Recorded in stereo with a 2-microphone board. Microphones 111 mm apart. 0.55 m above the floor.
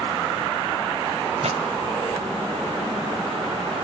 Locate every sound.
1.4 s a pop: 75° right (ahead or behind), 2.5 m